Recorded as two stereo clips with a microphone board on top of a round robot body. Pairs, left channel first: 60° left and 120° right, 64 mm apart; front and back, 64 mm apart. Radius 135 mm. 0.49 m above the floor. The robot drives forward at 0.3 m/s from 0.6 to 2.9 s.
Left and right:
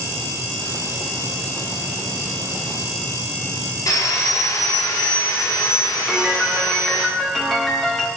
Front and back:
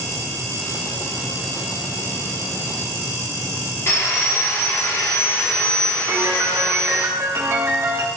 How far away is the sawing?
About 1.5 m.